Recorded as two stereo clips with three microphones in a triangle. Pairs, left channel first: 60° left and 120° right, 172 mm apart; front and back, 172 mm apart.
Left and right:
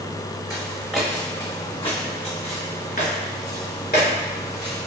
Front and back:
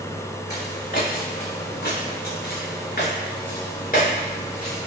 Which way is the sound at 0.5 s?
50° right.